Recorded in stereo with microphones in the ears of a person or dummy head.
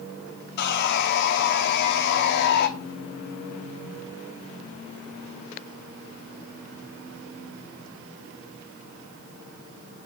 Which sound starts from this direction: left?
Sawing, at 0.6 s.